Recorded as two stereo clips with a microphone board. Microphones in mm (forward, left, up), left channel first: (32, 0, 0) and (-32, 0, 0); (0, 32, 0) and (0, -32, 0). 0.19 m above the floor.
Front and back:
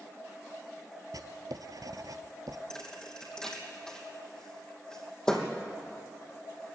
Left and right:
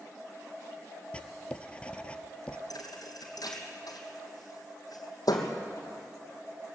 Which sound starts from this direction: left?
A thud, at 2.7 s.